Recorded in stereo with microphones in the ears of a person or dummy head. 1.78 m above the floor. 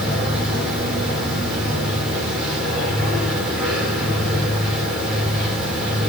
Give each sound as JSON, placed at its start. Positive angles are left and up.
{"t": 0.0, "sound": "a machine running", "side_deg": 0, "distance_m": 3.0}